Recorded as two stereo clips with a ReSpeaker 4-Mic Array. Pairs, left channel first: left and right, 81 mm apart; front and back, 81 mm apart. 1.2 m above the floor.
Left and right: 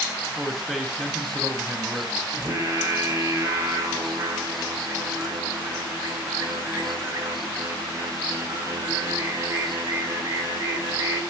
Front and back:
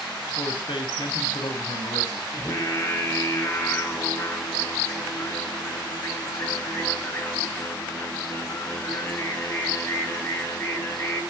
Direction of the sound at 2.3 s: 50° right.